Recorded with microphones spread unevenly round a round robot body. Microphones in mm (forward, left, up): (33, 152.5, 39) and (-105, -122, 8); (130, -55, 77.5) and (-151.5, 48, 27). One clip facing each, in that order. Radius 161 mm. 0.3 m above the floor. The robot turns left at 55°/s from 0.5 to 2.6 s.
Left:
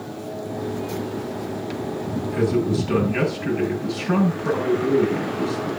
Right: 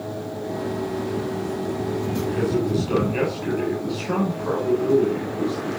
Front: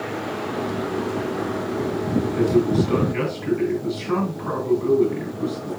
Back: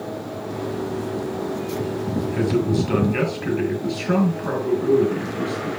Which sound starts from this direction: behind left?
A man speaking, at 2.3 s.